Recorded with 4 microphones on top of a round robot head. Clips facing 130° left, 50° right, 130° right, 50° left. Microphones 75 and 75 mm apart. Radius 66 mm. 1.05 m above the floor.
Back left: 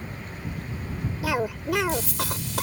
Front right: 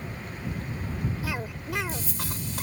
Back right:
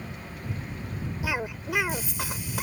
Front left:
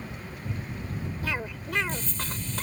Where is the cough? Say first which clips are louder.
Back left 7 dB, back right 4 dB; 150° left.